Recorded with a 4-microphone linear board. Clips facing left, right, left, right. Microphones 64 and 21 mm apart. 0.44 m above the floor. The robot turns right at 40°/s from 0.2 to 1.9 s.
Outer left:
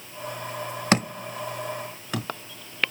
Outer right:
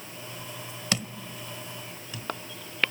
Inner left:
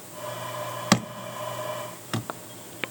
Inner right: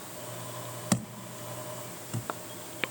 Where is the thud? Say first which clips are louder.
Outer left 9 dB, inner left 8 dB; 50° left (ahead or behind), 0.5 m; by 2.3 s 85° left, 0.5 m.